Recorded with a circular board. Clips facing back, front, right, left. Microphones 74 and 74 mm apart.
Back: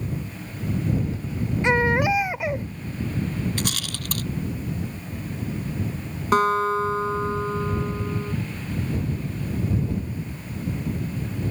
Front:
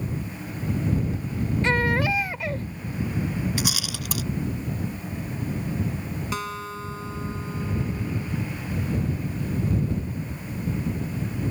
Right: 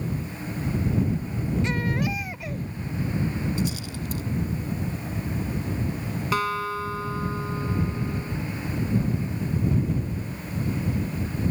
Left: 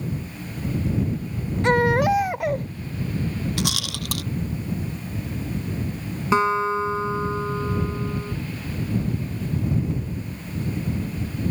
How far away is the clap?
No clap in this recording.